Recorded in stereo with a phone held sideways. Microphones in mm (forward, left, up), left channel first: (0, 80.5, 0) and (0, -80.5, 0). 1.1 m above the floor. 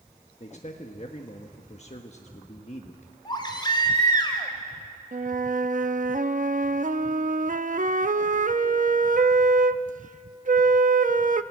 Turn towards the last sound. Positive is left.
turn(degrees=-55)  # may be behind; listen again after turning